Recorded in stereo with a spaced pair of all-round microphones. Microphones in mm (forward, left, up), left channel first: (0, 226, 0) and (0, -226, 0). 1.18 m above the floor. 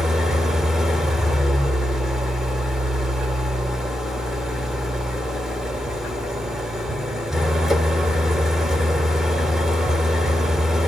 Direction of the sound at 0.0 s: Centre (ahead or behind).